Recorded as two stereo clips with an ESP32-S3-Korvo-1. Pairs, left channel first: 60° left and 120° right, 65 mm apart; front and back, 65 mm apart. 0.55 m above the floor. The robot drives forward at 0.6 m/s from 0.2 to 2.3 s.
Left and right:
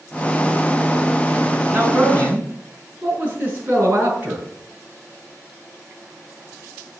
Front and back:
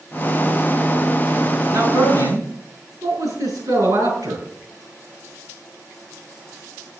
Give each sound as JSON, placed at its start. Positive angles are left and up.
{"t": 1.7, "sound": "a man speaking", "azimuth_deg": 180, "distance_m": 6.0}